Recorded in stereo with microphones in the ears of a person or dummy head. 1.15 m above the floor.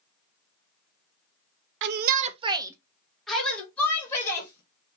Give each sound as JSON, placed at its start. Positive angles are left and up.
{"t": 1.8, "sound": "a shout", "side_deg": -60, "distance_m": 0.5}